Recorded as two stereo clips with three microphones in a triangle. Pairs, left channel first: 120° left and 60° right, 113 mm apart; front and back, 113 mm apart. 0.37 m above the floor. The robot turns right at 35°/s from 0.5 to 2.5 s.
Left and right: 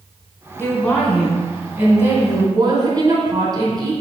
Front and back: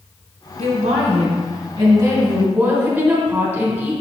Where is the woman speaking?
170° right, 2.5 m; by 3.9 s 105° right, 2.5 m.